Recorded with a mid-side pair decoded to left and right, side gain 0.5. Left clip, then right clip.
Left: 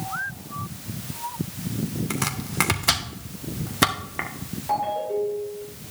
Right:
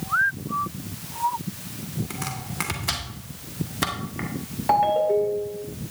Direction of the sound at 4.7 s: 60° right.